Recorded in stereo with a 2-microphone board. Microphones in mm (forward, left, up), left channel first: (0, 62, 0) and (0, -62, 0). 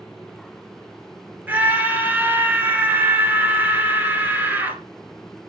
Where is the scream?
15° right (ahead or behind), 2.5 m.